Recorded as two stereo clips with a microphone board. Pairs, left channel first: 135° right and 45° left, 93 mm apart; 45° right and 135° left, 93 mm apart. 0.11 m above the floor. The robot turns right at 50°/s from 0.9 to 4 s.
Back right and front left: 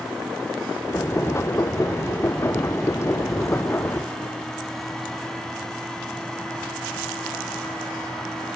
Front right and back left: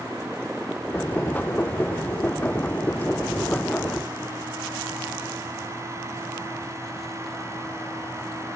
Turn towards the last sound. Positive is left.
No sound to turn to.